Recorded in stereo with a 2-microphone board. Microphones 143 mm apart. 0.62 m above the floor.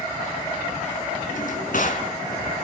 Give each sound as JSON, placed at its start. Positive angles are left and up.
{"t": 1.3, "sound": "a drawer", "side_deg": 70, "distance_m": 3.0}